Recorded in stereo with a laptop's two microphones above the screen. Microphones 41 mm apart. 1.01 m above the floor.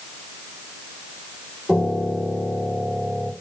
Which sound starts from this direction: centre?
A piano, at 1.7 s.